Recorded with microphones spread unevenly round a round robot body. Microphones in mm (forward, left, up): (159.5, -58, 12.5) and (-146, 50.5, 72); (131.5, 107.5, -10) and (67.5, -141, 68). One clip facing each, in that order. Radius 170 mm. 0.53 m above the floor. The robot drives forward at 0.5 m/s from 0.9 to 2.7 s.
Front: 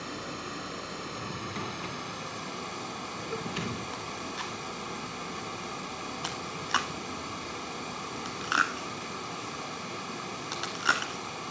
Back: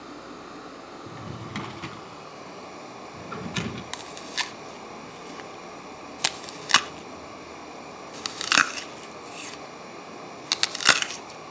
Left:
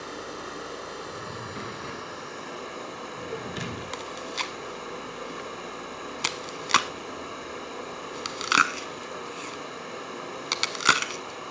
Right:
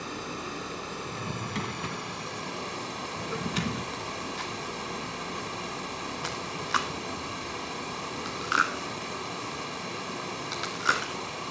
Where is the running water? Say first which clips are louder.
Front 1 dB, right 1 dB; 55° right, 2.5 m; by 11.5 s 75° right, 2 m.